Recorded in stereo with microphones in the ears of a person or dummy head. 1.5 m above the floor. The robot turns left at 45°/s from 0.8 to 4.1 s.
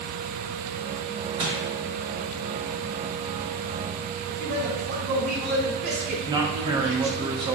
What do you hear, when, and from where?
1.4 s crushing: 30° right (ahead or behind), 1.9 m; by 1.6 s 40° right (ahead or behind), 1.9 m
4.3 s a man speaking: 50° right (ahead or behind), 1.7 m
6.3 s a man speaking: 20° right (ahead or behind), 0.7 m